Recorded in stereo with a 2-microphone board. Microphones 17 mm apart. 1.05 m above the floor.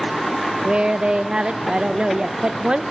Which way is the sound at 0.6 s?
60° right (ahead or behind).